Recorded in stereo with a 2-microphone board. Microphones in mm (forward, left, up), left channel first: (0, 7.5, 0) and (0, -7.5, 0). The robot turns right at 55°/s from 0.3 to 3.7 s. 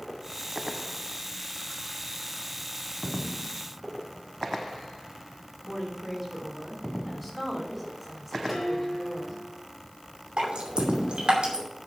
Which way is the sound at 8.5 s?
10° right (ahead or behind).